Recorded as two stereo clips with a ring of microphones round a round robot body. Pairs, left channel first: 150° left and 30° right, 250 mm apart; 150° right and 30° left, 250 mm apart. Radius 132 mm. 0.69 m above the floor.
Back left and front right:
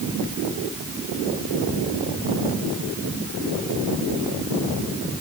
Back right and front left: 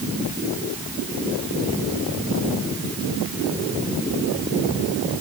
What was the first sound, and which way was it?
Only background noise.